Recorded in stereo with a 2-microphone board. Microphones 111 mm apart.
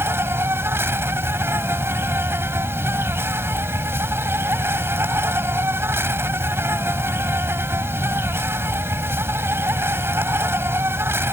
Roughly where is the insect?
Right.